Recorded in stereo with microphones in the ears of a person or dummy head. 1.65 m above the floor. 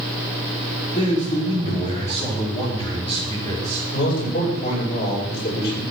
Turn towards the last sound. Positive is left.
turn(degrees=60)  # may be behind; listen again after turning